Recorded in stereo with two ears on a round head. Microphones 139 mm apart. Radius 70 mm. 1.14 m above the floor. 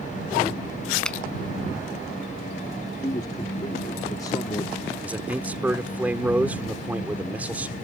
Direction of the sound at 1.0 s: 5° left (ahead or behind).